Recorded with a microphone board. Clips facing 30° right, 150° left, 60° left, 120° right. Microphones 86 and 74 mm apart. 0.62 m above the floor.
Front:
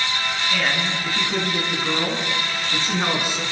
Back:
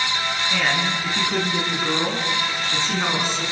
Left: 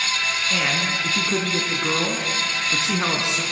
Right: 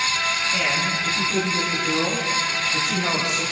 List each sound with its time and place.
0.5 s a man speaking: 70° left, 7 m; by 3.4 s 50° left, 7 m